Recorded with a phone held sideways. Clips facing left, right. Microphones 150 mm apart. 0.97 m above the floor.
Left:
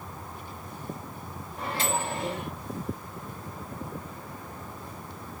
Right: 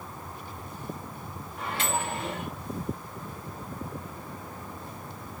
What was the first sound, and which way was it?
A microwave, 35° left (ahead or behind).